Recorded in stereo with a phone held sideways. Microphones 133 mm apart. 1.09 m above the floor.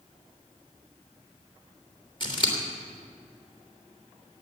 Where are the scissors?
35° left (ahead or behind), 3 m.